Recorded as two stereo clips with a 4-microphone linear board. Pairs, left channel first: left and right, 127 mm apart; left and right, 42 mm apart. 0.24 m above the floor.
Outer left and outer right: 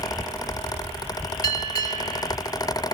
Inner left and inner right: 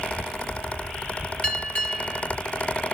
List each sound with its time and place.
1.4 s a bell: 30° left (ahead or behind), 1.6 m